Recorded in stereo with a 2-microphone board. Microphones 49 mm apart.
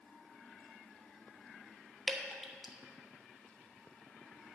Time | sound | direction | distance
2.1 | dripping | centre (ahead or behind) | 1.1 m